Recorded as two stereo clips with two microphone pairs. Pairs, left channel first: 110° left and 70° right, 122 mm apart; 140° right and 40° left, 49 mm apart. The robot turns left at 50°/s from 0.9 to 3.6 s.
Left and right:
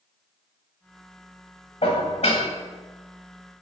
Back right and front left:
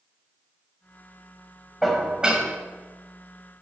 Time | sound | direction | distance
1.8 | dishes clattering | 130° left | 1.3 m